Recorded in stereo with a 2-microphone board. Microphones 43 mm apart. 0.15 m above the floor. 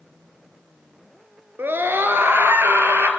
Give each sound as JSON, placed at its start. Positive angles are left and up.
{"t": 1.6, "sound": "a scream", "side_deg": -55, "distance_m": 1.9}